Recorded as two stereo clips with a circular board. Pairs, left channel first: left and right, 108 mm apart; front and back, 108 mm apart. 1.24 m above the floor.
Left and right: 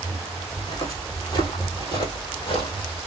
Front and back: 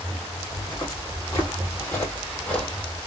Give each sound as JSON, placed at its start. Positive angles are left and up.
{"t": 0.6, "sound": "footsteps", "azimuth_deg": 45, "distance_m": 2.5}